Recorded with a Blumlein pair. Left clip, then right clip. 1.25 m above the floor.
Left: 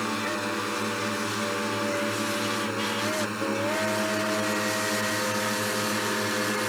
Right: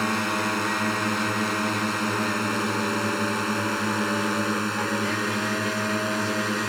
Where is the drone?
20° right; by 6.7 s 15° right.